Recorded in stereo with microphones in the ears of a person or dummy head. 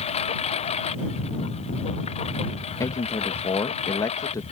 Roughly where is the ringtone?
I don't hear a ringtone.